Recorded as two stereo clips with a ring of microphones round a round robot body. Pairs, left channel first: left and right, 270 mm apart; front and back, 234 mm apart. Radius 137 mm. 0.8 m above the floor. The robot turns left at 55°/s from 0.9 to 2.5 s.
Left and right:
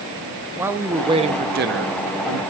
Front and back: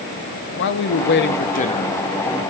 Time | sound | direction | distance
0.6 | a man speaking | 10° right | 0.6 m